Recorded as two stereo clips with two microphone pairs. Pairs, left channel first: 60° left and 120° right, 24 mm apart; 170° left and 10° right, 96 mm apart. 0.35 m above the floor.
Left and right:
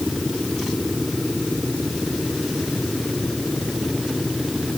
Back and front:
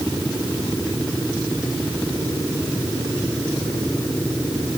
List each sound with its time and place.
Only background noise.